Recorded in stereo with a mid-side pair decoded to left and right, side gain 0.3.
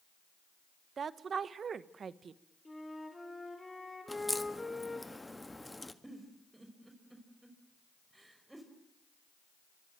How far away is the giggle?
About 5 m.